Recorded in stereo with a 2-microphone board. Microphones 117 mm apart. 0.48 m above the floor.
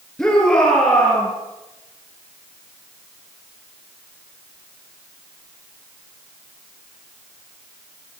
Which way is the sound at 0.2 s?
10° left (ahead or behind).